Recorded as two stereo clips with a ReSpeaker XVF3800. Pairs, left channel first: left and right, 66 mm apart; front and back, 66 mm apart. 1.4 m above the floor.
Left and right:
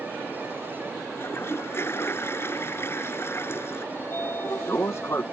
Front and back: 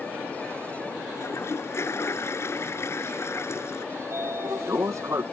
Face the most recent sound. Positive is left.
turn(degrees=140)